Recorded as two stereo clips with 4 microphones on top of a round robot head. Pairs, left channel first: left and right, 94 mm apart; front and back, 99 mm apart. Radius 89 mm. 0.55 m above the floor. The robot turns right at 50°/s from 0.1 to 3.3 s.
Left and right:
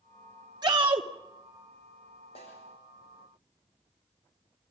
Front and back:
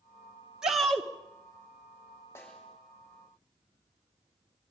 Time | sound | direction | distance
0.6 | a shout | 100° right | 1.3 m
2.4 | a snare drum | 65° left | 6 m